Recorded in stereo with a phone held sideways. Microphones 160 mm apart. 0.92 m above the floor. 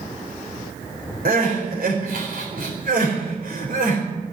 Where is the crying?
70° right (ahead or behind), 4.5 m.